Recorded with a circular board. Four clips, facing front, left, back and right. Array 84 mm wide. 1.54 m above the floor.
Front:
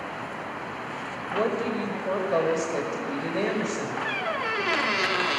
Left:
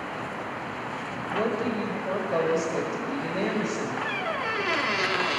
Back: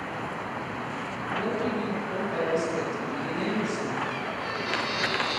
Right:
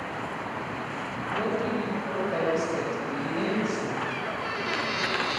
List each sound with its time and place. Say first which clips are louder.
1.3 s a woman speaking: left 1 dB, front 3 dB; 20° left, 5.5 m
4.0 s a squeak: left 2 dB, front 3 dB; 30° left, 1.4 m